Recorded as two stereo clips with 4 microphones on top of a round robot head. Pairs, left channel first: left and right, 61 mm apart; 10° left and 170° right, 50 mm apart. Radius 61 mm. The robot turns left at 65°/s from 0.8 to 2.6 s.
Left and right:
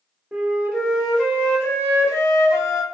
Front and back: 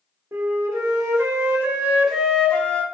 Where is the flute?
165° right, 0.7 m; by 2.8 s 80° left, 0.7 m.